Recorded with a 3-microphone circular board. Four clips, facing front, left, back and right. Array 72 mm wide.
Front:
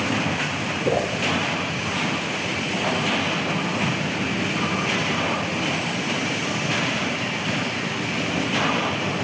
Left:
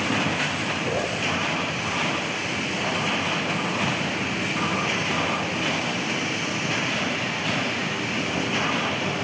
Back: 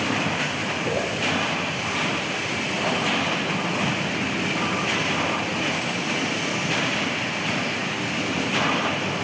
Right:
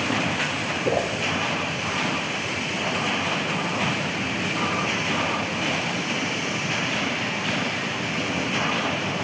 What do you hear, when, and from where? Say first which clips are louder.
0.8 s a whoosh: right 5 dB, front 5 dB; 50° right, 1.1 m